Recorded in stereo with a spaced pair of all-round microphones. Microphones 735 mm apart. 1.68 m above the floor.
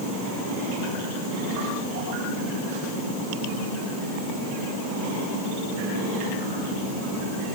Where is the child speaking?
No child speaking in this recording.